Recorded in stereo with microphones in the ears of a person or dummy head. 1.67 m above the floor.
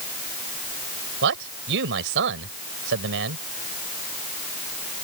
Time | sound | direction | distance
1.2 | a man speaking | 65° right (ahead or behind) | ?